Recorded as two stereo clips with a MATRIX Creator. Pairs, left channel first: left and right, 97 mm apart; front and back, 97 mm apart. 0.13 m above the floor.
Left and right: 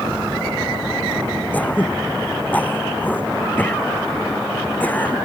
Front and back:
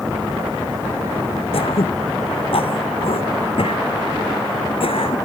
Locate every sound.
1.5 s throat clearing: 15° left